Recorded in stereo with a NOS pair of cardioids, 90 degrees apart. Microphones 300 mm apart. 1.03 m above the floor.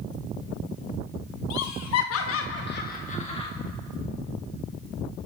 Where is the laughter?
70° left, 1.2 m; by 3.5 s 15° left, 1.3 m.